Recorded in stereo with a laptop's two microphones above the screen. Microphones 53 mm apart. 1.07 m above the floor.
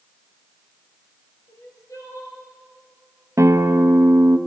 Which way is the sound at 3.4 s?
65° right (ahead or behind).